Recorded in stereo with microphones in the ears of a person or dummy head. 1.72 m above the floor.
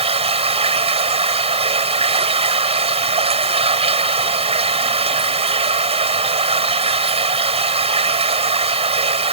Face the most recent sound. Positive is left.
turn(degrees=-30)  # may be behind; listen again after turning